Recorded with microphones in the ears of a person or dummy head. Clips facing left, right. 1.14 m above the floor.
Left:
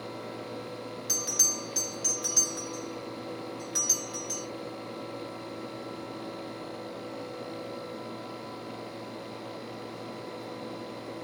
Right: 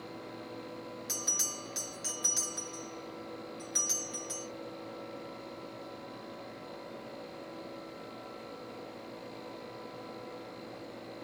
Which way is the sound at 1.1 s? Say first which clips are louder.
Left 6 dB; 5° left (ahead or behind).